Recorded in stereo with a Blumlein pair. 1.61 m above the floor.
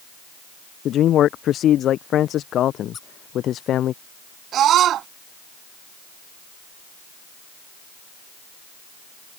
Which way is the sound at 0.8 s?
30° left.